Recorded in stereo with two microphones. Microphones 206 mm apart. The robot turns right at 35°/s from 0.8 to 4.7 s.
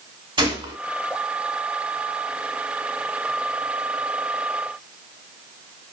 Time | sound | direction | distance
0.4 | a gunshot | 25° right (ahead or behind) | 0.7 m